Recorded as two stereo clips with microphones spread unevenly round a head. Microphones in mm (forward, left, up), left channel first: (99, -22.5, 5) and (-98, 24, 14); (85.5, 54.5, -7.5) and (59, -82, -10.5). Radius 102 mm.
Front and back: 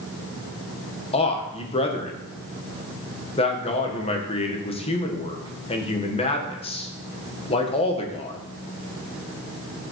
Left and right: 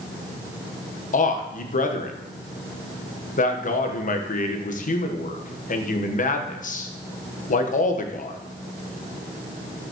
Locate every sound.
1.1 s a man speaking: 50° left, 1.3 m